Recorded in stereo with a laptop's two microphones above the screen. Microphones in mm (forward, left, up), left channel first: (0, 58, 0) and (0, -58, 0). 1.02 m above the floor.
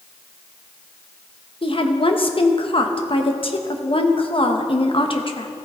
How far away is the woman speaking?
About 0.8 m.